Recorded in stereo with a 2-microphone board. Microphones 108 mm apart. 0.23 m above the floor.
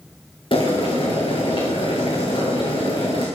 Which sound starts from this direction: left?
Boiling, at 0.5 s.